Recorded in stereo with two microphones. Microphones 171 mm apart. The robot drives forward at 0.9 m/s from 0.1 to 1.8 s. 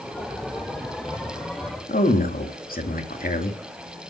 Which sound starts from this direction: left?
A man speaking, at 1.9 s.